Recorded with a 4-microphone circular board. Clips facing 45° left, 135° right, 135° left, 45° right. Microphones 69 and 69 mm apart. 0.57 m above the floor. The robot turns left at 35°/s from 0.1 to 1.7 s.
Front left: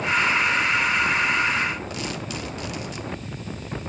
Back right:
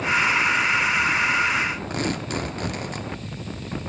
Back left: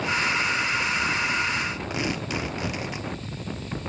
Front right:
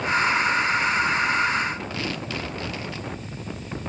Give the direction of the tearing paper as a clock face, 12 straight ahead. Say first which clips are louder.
Back right 4 dB, back left 2 dB; 5 o'clock.